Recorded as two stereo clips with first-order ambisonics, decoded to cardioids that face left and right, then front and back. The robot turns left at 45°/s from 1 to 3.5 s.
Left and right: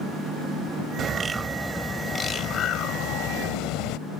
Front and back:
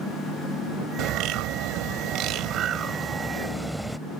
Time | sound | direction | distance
1.0 | a bird | 150° right | ?